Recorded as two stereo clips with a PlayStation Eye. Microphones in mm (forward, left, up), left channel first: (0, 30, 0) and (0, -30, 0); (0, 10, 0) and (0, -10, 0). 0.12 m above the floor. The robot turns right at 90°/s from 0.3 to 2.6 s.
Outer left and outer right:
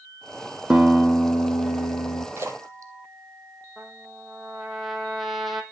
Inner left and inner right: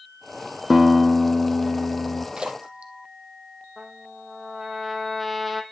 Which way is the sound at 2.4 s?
40° right (ahead or behind).